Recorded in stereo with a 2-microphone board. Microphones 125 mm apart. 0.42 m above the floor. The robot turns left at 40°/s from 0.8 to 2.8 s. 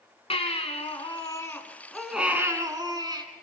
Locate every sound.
0.3 s a baby crying: 50° left, 2 m; by 3.2 s 30° right, 2 m